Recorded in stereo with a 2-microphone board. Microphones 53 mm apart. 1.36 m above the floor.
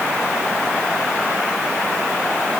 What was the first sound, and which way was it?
Only background noise.